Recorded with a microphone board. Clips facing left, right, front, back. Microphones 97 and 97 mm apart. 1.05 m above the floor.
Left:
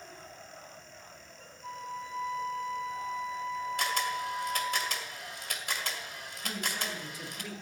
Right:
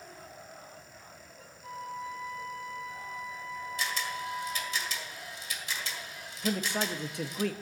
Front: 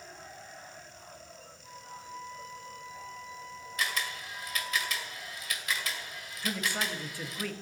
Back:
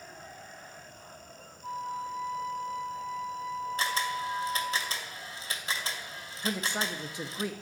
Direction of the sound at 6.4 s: 110° right.